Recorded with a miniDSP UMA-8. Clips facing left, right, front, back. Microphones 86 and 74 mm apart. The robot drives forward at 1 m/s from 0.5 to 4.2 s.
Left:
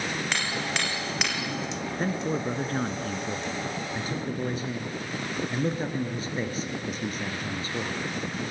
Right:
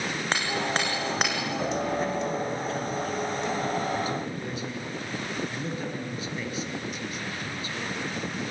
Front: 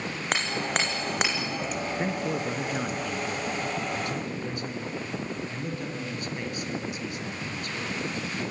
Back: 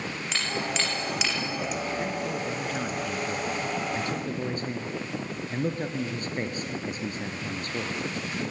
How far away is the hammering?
About 5 m.